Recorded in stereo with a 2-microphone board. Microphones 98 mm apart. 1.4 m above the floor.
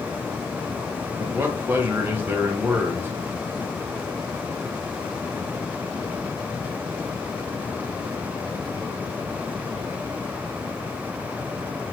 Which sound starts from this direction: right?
A man speaking, at 1.2 s.